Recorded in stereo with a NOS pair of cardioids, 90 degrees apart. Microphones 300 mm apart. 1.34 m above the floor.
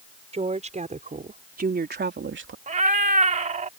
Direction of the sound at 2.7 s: 25° right.